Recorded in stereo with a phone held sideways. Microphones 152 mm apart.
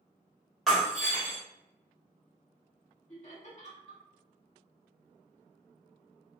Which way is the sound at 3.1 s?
50° left (ahead or behind).